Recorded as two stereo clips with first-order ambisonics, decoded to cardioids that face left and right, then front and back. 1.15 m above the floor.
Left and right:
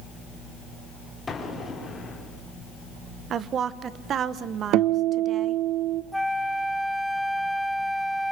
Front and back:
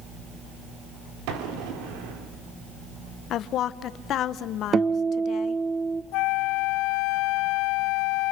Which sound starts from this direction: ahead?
A flute, at 6.1 s.